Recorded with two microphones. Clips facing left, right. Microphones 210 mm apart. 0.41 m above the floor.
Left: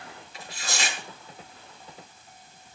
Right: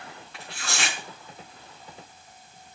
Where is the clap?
I don't hear a clap.